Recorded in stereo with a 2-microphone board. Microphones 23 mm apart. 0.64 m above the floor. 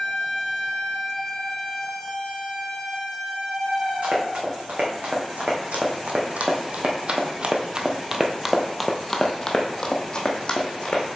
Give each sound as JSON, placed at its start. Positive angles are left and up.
{"t": 4.0, "sound": "running footsteps", "side_deg": -75, "distance_m": 2.5}